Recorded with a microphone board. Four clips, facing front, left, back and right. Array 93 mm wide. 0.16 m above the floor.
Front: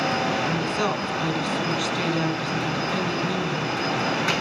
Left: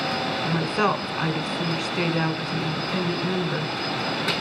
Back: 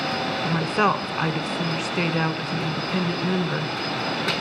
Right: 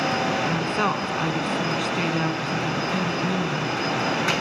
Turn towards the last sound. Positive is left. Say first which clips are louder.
# even, back 3 dB
turn(degrees=180)